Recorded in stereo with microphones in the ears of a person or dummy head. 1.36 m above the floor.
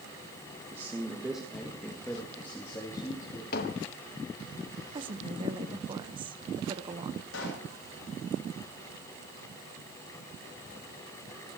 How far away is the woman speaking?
About 1.3 m.